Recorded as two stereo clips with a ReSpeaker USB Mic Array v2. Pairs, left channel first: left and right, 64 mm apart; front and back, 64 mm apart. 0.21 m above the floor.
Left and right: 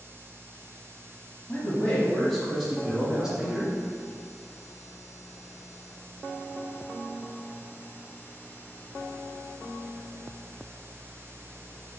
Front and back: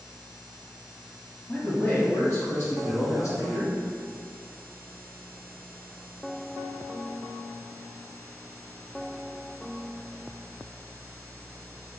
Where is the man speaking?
45° left, 1.1 m; by 3.7 s 20° right, 1.7 m.